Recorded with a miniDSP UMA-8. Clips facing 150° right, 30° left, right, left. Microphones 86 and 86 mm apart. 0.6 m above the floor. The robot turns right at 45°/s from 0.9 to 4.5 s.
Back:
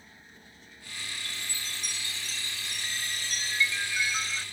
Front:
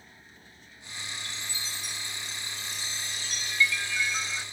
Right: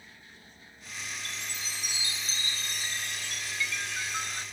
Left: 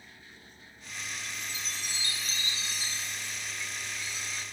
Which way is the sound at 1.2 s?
165° left.